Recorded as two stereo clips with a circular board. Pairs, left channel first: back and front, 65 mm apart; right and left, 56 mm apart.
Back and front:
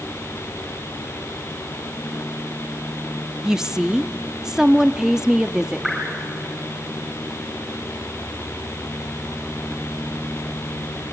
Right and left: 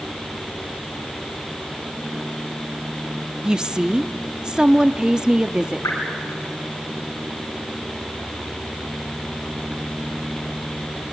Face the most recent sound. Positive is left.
turn(degrees=-85)